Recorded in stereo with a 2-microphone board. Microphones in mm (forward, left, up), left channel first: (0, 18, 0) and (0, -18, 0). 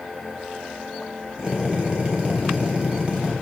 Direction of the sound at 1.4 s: 30° right (ahead or behind).